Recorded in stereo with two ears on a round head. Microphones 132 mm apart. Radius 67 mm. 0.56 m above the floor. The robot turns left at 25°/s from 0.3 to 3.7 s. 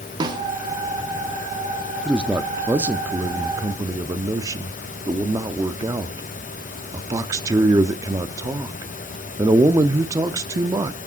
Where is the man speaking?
5° right (ahead or behind), 0.6 m; by 11.0 s 20° right (ahead or behind), 0.6 m.